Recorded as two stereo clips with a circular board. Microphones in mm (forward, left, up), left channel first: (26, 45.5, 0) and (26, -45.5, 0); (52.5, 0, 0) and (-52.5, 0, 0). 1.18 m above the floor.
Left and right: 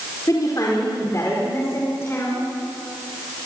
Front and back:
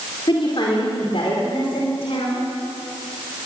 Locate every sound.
0.3 s a woman speaking: 40° left, 4 m; by 2.4 s 25° left, 5 m